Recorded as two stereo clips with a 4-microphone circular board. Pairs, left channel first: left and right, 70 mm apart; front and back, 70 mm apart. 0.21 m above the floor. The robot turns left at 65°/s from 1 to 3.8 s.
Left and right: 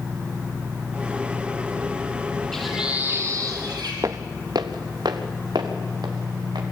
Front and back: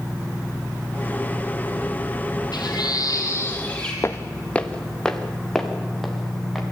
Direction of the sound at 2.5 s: 5° left.